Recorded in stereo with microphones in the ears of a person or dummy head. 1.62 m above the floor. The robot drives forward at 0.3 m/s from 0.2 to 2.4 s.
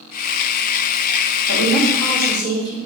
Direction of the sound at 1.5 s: 90° right.